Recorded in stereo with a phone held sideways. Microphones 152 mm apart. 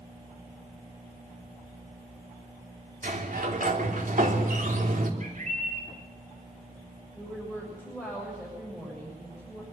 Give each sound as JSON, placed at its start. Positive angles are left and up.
{"t": 3.0, "sound": "a sliding door", "side_deg": -65, "distance_m": 3.0}
{"t": 5.2, "sound": "a bird", "side_deg": -55, "distance_m": 5.5}
{"t": 7.2, "sound": "a woman speaking", "side_deg": -5, "distance_m": 7.5}